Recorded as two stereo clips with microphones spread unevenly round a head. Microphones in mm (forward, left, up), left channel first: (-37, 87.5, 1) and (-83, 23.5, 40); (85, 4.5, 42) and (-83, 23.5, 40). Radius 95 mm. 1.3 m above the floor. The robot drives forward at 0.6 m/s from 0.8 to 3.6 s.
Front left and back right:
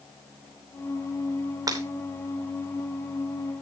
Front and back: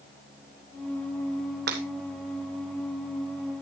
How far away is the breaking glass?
About 2.5 m.